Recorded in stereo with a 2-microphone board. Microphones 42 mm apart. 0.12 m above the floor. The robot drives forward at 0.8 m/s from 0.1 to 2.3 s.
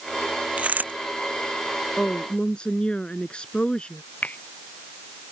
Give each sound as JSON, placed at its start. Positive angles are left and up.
{"t": 0.6, "sound": "a dropped coin", "side_deg": -35}
{"t": 2.0, "sound": "a woman speaking", "side_deg": 25}
{"t": 4.2, "sound": "a finger snap", "side_deg": 40}